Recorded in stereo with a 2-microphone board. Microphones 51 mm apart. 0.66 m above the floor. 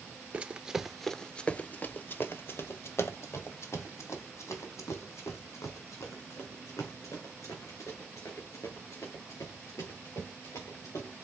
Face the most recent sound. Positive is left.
turn(degrees=85)